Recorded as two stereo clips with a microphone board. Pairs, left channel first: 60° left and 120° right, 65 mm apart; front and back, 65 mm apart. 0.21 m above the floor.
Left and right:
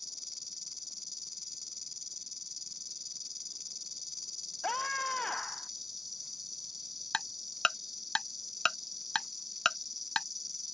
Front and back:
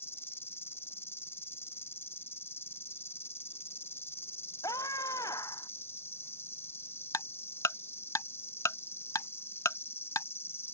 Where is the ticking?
15° right.